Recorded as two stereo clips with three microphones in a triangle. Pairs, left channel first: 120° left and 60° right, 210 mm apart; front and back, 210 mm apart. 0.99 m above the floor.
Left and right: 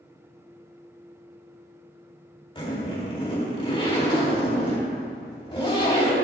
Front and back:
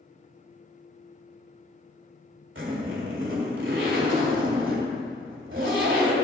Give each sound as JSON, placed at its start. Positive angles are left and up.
{"t": 2.5, "sound": "a zipper", "azimuth_deg": -175, "distance_m": 2.5}